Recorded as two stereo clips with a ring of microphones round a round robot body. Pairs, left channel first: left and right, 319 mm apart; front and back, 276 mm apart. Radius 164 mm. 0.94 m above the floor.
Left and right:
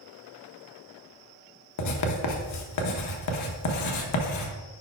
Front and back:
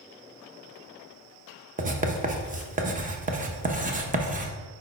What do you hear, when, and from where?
1.8 s writing: 120° left, 1.0 m